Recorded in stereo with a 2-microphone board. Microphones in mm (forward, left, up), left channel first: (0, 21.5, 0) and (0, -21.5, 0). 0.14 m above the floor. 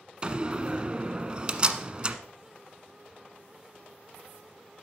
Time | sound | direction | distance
0.2 | a door slam | 25° right (ahead or behind) | 1.1 m